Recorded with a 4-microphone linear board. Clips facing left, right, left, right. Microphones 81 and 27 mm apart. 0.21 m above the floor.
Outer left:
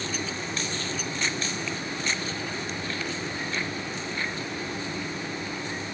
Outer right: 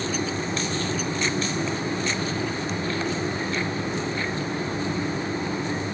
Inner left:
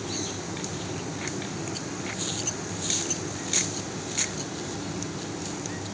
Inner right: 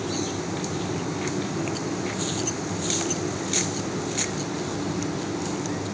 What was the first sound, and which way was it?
Only background noise.